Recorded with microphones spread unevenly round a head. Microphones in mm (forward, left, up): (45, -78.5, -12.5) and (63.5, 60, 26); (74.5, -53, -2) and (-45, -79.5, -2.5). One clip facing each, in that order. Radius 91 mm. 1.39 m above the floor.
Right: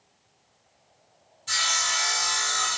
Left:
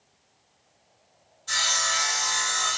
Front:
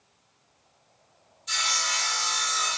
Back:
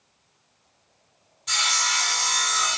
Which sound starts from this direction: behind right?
Sawing, at 1.5 s.